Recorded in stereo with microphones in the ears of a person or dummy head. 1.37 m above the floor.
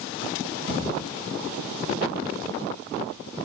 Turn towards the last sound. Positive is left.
turn(degrees=30)  # may be behind; listen again after turning